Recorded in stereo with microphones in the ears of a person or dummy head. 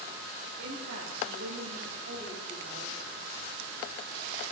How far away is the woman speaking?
About 4.5 m.